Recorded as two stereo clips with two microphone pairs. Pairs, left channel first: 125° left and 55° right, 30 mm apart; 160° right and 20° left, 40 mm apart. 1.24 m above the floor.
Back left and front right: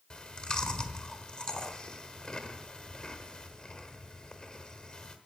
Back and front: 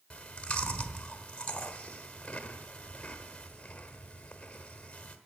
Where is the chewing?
155° left, 1.1 m.